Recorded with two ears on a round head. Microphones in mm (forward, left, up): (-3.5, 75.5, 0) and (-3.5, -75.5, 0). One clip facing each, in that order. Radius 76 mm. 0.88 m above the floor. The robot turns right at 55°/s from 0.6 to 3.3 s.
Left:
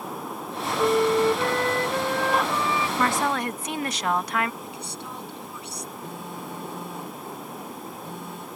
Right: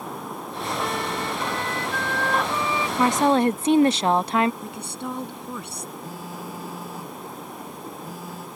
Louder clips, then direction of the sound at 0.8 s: Left 11 dB; 85° left.